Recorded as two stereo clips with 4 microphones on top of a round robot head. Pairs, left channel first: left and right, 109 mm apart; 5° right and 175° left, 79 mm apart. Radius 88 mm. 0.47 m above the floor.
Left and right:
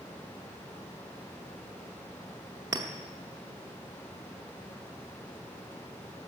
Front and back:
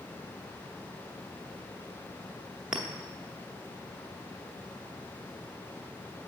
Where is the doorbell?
I don't hear a doorbell.